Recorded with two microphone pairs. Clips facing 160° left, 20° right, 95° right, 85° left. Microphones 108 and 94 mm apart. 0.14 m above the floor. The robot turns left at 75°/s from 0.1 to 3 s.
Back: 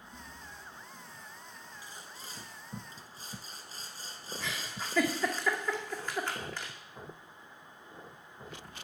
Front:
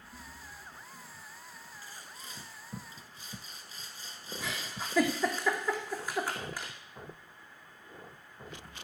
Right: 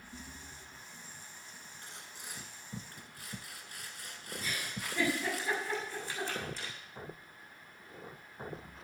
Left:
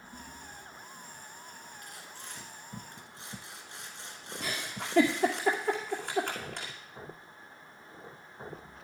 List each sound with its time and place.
1.8 s sawing: 135° right, 1.7 m; by 5.4 s 135° left, 1.7 m
4.4 s a giggle: 60° left, 2.5 m